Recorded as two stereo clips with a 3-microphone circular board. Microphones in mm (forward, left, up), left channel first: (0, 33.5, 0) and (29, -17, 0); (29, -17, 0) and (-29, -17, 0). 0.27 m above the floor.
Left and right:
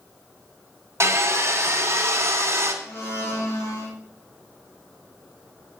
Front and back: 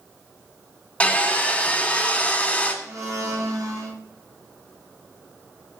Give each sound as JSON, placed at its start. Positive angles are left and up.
{"t": 1.0, "sound": "sawing", "azimuth_deg": -65, "distance_m": 1.8}
{"t": 2.8, "sound": "a blender", "azimuth_deg": 160, "distance_m": 3.0}